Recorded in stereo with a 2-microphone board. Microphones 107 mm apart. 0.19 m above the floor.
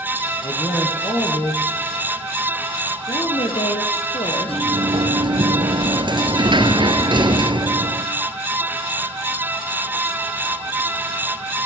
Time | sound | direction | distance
0.4 | a man speaking | 40° left (ahead or behind) | 5 m
3.1 | a woman speaking | 65° left (ahead or behind) | 4.5 m
4.5 | a sliding door | 45° right (ahead or behind) | 2 m